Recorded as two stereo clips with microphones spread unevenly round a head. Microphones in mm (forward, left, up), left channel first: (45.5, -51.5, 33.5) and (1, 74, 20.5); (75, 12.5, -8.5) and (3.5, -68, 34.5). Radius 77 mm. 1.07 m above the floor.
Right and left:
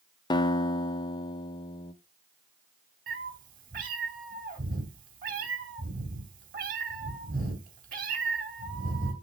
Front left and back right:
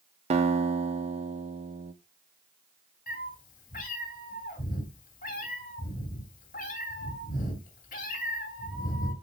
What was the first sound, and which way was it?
A guitar, 115° right.